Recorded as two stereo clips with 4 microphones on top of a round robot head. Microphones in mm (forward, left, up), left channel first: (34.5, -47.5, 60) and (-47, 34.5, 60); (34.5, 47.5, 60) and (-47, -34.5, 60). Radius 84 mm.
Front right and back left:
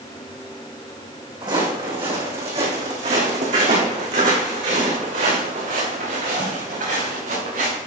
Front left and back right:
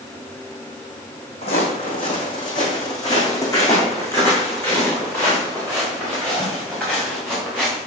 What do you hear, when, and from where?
1.4 s footsteps: 80° left, 3.5 m; by 7.8 s 130° left, 7 m